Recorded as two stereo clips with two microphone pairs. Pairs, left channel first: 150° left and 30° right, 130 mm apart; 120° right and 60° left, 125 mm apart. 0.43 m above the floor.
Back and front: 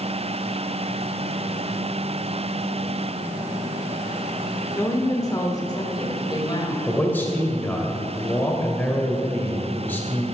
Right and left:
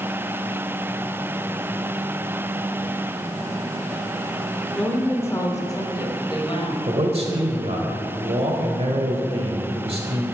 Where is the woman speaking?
170° left, 1.2 m; by 6.8 s 160° right, 2.5 m.